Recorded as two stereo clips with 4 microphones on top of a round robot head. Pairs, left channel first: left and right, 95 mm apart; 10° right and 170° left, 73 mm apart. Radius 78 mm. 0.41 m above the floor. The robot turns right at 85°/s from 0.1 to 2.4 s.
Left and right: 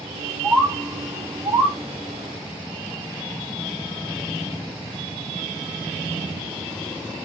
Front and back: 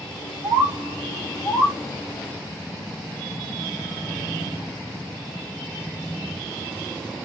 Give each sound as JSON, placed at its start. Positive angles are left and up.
{"t": 0.4, "sound": "a bird", "azimuth_deg": 180, "distance_m": 0.7}